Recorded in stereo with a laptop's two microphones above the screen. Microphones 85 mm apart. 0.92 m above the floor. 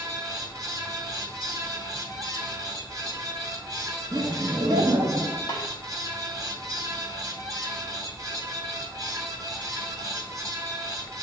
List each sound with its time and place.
0.0 s a fan: 45° right (ahead or behind), 0.8 m
4.1 s laughter: 40° right (ahead or behind), 0.7 m
5.5 s a snare drum: 55° left (ahead or behind), 1.3 m